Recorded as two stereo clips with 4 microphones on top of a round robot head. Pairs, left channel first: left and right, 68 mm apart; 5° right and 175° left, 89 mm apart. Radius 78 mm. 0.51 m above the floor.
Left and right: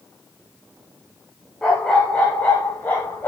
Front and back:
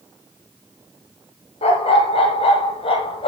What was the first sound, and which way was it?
A dog barking, 10° left.